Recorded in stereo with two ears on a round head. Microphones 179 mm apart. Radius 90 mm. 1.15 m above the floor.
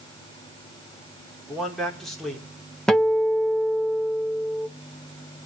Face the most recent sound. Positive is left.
turn(degrees=5)  # may be behind; listen again after turning